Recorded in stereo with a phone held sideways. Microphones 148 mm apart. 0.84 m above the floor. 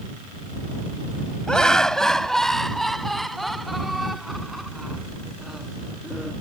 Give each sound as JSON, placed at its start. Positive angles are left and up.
{"t": 1.5, "sound": "laughter", "side_deg": 5}